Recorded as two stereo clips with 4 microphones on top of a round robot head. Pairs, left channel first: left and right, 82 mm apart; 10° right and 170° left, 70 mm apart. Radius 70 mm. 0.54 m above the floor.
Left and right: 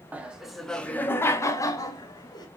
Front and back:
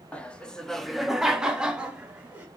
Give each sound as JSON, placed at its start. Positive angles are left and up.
{"t": 0.1, "sound": "laughter", "azimuth_deg": -50, "distance_m": 0.7}